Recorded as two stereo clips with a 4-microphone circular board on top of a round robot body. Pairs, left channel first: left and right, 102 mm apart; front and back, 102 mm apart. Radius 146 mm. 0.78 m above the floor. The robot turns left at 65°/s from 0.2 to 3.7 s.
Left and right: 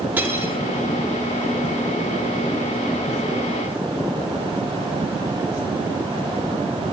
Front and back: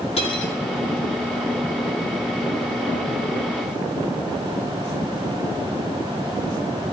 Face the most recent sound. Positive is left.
turn(degrees=115)